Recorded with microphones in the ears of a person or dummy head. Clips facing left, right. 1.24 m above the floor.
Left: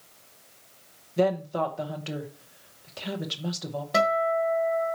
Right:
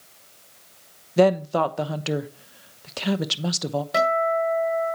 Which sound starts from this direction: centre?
A guitar, at 3.9 s.